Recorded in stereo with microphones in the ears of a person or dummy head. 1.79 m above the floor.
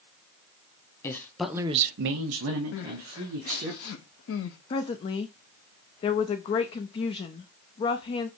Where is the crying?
70° left (ahead or behind), 0.7 m.